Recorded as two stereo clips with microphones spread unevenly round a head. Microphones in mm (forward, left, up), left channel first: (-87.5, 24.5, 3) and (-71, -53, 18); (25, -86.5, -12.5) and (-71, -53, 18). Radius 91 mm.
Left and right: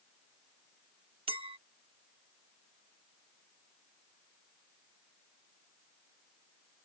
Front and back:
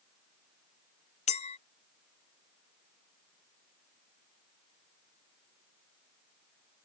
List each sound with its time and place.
1.3 s a clink: 35° right